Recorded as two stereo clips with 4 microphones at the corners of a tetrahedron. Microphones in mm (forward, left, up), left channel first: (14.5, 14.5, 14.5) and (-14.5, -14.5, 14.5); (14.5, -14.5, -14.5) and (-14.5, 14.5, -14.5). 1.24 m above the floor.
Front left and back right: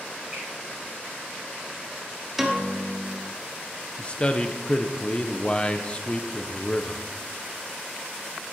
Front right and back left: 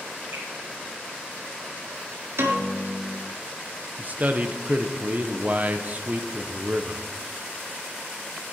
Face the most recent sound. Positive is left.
turn(degrees=100)